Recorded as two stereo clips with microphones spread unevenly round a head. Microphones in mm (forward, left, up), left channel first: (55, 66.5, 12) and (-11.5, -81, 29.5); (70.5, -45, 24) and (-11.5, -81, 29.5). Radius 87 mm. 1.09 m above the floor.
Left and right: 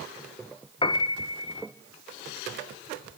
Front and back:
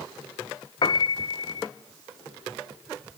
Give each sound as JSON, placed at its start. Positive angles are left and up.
{"t": 0.8, "sound": "a piano", "azimuth_deg": 15, "distance_m": 0.9}